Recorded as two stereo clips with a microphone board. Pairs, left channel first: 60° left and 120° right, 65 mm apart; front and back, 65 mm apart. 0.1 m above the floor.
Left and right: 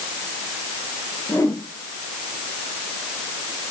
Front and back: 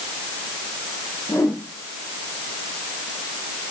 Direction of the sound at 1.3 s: 30° left.